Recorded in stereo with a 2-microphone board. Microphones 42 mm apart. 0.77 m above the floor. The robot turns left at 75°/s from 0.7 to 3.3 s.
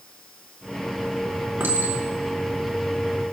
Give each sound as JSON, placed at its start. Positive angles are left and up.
{"t": 1.6, "sound": "a clink", "side_deg": -65, "distance_m": 4.0}